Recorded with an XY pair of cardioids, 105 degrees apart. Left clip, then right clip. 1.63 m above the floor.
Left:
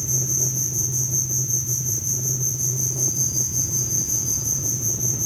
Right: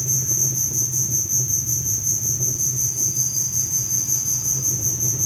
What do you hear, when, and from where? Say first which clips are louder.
0.0 s an insect: right 2 dB; 30° right, 1.9 m